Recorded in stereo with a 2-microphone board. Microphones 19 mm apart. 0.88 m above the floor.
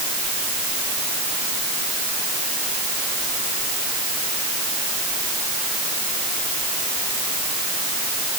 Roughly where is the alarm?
No alarm in this recording.